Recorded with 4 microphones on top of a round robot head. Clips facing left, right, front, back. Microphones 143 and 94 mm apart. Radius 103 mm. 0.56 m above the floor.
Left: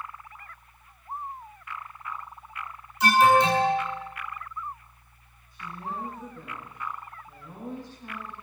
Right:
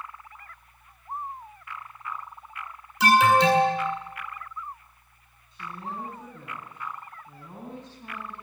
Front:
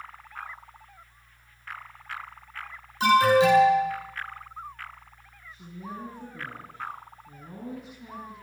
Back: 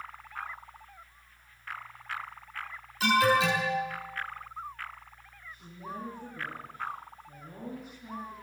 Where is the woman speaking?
25° right, 7.5 m.